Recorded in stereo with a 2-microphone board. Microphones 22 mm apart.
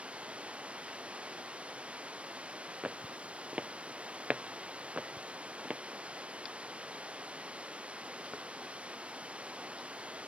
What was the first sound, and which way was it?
Running water, 80° right.